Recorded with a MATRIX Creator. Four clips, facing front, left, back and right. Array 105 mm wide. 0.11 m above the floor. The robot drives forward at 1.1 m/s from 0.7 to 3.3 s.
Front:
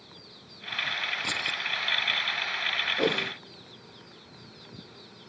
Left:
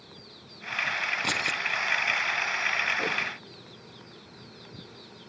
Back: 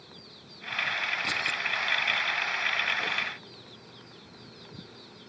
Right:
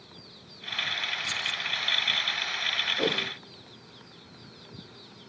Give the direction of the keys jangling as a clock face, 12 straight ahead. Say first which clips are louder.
Left 5 dB, back 2 dB; 9 o'clock.